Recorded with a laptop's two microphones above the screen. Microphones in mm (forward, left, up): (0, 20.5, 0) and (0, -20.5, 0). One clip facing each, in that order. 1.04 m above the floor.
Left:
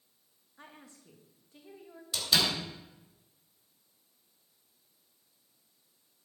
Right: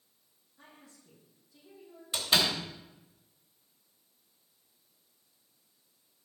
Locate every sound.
0.6 s a woman speaking: 45° left (ahead or behind), 1.7 m
2.1 s a door slam: 30° right (ahead or behind), 3 m